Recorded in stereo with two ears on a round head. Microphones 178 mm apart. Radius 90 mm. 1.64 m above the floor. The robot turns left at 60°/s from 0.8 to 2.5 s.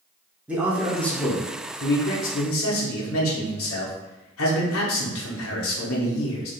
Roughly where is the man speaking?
Behind.